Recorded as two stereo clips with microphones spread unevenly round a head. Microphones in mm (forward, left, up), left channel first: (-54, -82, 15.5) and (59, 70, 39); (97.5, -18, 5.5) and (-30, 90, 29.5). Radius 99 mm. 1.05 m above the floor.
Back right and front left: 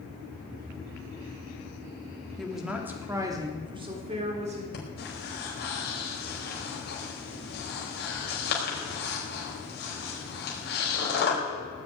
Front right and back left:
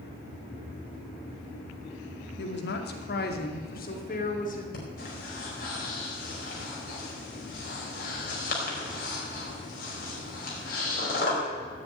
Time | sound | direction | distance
2.4 | a woman speaking | 40° right | 2.5 m
4.7 | breathing | 85° right | 5 m